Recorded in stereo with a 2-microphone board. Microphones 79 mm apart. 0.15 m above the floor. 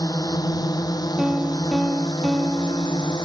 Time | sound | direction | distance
0.0 | a drone | 50° left (ahead or behind) | ?
1.2 | a piano | 5° right (ahead or behind) | ?